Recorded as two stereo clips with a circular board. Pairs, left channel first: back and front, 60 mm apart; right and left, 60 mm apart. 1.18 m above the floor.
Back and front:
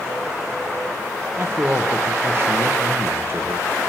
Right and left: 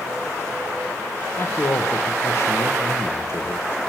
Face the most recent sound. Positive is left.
turn(degrees=-50)